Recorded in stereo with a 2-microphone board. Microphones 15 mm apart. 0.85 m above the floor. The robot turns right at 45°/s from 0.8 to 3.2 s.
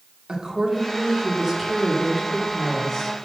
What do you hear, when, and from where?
0.3 s a woman speaking: 65° right, 1.8 m; by 3.3 s 40° left, 1.8 m